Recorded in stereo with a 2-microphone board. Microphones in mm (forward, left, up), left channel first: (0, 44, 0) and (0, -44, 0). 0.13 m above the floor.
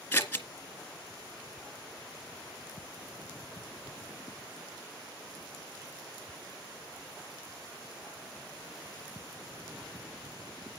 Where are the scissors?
20° left (ahead or behind), 1.9 m.